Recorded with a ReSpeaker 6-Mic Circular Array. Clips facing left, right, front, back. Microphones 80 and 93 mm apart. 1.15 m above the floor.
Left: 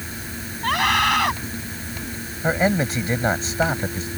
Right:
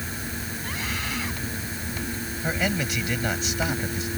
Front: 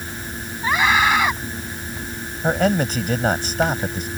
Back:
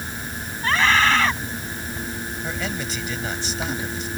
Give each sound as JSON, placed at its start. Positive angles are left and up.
{"t": 0.6, "sound": "a scream", "azimuth_deg": 75}
{"t": 2.4, "sound": "a man speaking", "azimuth_deg": 35}